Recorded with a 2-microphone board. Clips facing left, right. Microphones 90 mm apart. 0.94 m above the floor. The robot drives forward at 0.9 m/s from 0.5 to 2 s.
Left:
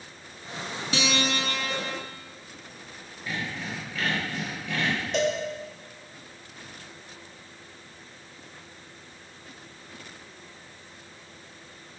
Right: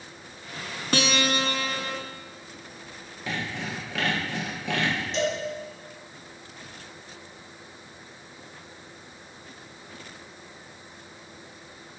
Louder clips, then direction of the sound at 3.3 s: Right 1 dB; 80° right.